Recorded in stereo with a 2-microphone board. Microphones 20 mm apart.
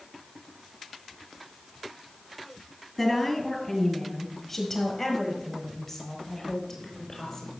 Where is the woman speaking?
15° left (ahead or behind), 4 m; by 7.5 s 25° left (ahead or behind), 6 m.